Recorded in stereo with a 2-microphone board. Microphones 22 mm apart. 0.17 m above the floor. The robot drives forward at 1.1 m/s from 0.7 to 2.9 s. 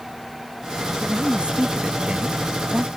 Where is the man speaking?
55° right (ahead or behind); by 2.9 s 60° right (ahead or behind).